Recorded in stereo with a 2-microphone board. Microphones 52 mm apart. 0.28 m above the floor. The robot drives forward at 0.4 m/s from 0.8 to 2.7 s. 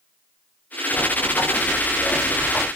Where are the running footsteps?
75° left (ahead or behind), 3.5 m; by 2.7 s 80° left, 4.5 m.